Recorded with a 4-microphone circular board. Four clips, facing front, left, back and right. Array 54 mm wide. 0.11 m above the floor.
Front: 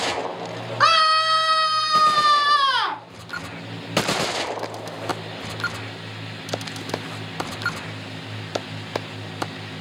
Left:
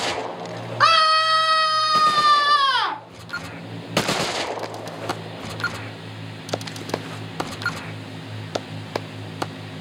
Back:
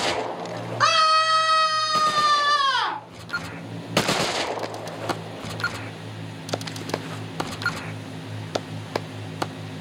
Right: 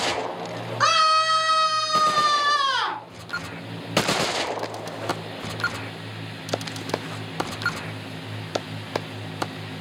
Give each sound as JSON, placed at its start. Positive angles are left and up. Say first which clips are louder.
{"t": 0.8, "sound": "a scream", "louder": "left 3 dB, front 1 dB", "azimuth_deg": 55, "distance_m": 1.6}